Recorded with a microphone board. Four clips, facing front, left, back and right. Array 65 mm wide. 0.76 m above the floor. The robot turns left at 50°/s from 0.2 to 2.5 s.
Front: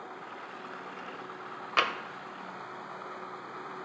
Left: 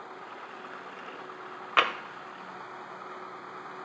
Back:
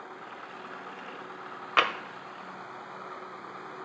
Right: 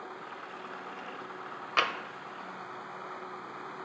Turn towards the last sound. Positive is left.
turn(degrees=95)